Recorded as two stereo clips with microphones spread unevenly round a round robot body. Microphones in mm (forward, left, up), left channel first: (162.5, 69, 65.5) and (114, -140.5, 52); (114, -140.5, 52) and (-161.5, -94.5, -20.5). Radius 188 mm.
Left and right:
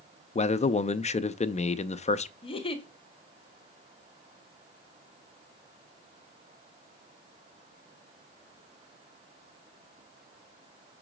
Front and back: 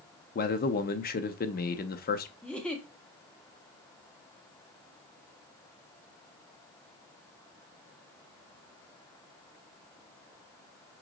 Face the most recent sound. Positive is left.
turn(degrees=105)